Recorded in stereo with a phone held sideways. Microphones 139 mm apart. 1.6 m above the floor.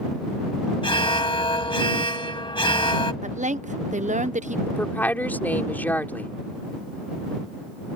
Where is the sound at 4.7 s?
10° left (ahead or behind).